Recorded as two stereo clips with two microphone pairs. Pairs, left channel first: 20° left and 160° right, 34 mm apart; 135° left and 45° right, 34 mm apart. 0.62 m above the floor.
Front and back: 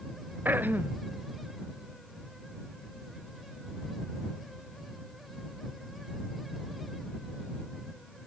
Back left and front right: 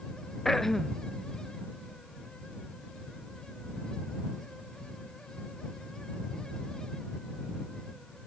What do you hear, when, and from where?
0.5 s throat clearing: 145° right